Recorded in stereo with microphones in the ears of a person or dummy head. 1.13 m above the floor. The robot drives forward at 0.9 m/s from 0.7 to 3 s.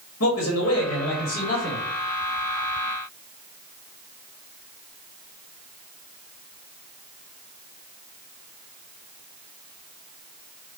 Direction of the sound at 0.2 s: 65° left (ahead or behind).